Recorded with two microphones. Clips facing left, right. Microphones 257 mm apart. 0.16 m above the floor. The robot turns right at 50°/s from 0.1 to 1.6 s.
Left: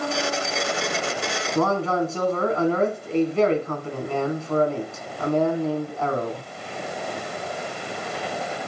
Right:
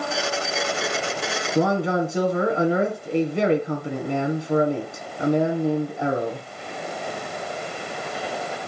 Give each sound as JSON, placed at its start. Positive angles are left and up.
{"t": 1.6, "sound": "a man speaking", "side_deg": -15, "distance_m": 1.6}